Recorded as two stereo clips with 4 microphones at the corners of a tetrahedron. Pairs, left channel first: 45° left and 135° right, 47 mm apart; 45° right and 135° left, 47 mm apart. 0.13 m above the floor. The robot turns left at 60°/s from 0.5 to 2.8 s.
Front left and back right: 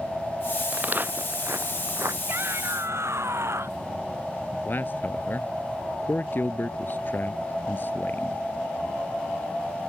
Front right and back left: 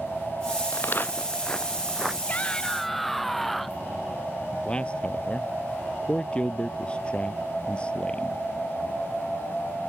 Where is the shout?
100° right; by 3.8 s 130° right.